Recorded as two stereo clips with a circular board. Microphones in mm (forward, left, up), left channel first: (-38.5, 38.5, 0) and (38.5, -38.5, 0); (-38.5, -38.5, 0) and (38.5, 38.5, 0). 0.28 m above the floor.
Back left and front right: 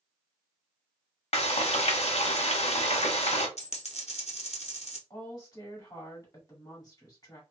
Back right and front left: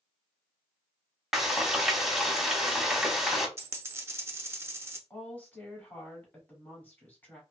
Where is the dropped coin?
115° left, 0.7 m.